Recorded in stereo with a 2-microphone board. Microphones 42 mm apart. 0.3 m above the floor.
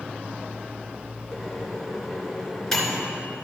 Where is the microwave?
5° left (ahead or behind), 2.5 m.